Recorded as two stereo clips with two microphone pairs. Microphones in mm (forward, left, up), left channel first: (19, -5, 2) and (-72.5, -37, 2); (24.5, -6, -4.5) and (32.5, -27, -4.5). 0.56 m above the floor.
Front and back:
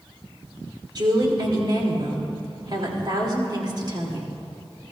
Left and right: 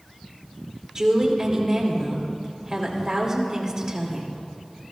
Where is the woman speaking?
130° right, 2.5 m.